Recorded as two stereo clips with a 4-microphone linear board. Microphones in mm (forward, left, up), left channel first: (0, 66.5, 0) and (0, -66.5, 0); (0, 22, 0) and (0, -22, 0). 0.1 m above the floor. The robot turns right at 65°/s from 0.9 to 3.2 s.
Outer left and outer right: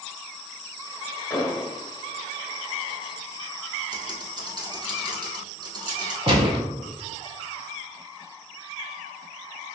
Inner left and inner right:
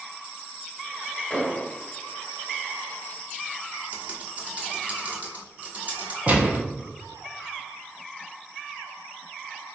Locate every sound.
1.3 s an explosion: 15° left (ahead or behind), 0.7 m; by 1.7 s 25° left (ahead or behind), 0.7 m
3.9 s typing on a keyboard: 35° right (ahead or behind), 1.2 m
6.3 s a gunshot: 40° right (ahead or behind), 1.1 m